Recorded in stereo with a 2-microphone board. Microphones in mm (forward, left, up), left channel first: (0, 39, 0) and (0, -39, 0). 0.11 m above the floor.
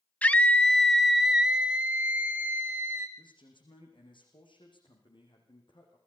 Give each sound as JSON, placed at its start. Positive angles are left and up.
{"t": 0.2, "sound": "a scream", "side_deg": 20, "distance_m": 1.1}
{"t": 3.2, "sound": "a man speaking", "side_deg": 75, "distance_m": 7.5}